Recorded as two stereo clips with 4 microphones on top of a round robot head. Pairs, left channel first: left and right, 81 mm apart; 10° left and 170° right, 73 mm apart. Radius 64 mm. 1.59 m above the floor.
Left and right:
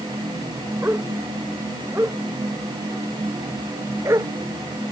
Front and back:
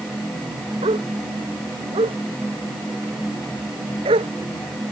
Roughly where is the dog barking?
Behind.